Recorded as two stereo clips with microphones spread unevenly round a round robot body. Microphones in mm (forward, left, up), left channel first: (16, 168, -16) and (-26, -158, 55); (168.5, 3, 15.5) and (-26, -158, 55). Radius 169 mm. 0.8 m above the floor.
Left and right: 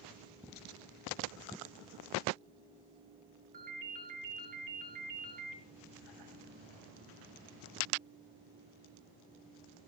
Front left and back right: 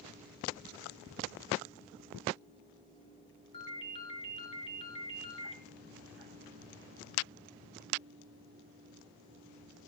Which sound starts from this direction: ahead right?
A ringtone, at 3.5 s.